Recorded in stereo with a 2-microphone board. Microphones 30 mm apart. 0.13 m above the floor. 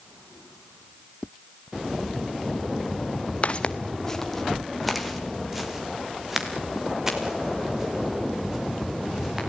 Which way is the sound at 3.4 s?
45° left (ahead or behind).